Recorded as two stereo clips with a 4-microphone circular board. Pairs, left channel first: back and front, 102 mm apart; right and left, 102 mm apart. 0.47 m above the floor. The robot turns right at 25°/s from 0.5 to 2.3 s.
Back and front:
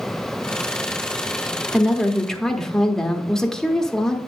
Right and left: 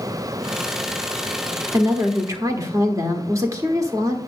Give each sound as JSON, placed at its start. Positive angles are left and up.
{"t": 1.7, "sound": "a woman speaking", "azimuth_deg": 85, "distance_m": 1.1}